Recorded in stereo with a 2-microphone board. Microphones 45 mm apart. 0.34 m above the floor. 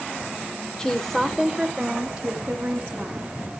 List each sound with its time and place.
0.8 s a woman speaking: 15° left (ahead or behind), 0.9 m; by 3.3 s 25° right (ahead or behind), 3 m